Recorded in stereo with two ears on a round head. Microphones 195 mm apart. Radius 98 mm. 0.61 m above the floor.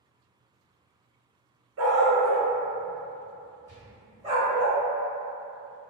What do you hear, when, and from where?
1.8 s a dog barking: 65° right (ahead or behind), 0.7 m; by 4.7 s 20° right (ahead or behind), 1.3 m
3.7 s a gunshot: 10° right (ahead or behind), 1.4 m